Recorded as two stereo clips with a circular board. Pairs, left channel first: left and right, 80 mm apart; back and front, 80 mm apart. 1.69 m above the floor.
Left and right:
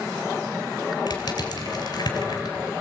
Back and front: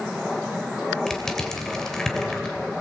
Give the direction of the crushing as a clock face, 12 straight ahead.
9 o'clock.